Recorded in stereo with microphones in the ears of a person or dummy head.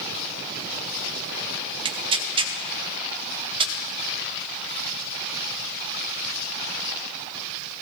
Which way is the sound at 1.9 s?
25° right (ahead or behind).